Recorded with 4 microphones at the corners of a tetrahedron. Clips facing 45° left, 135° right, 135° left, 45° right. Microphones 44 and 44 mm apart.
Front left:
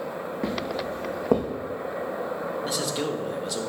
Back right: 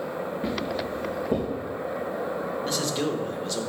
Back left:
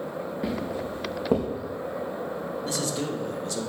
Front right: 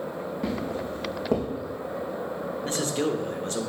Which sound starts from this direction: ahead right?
A man speaking, at 2.6 s.